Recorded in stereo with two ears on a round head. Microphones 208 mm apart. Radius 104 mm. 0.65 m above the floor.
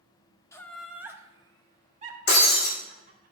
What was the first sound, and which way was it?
Laughter, 15° left (ahead or behind).